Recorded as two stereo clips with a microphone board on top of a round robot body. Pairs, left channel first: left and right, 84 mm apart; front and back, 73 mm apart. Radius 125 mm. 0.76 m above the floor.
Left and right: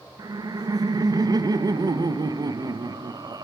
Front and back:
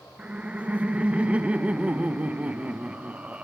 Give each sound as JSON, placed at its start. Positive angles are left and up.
{"t": 0.2, "sound": "laughter", "azimuth_deg": -110, "distance_m": 0.6}